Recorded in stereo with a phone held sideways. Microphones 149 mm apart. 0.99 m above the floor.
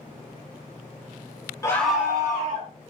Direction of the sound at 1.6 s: 20° left (ahead or behind).